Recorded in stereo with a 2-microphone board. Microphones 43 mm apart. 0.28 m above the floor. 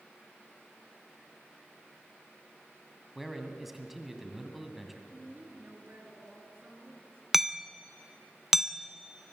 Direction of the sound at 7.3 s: 5° right (ahead or behind).